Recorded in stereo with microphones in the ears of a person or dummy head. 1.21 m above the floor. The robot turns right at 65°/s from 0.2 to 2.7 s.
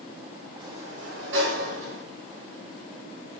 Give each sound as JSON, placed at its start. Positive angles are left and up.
{"t": 0.6, "sound": "a sliding door", "azimuth_deg": -155, "distance_m": 0.7}